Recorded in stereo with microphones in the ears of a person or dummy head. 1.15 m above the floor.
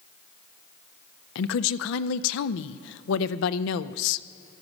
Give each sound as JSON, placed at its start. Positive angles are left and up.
{"t": 1.4, "sound": "a woman speaking", "side_deg": 75, "distance_m": 0.5}